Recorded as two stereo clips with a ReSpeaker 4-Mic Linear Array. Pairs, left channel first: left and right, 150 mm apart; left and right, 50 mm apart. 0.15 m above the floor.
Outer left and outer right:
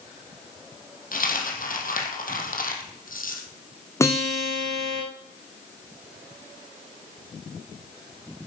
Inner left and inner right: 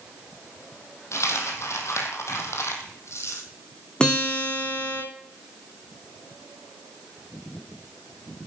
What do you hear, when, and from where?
1.1 s a dropped coin: 70° left (ahead or behind), 2.5 m
4.0 s a guitar: 20° left (ahead or behind), 3 m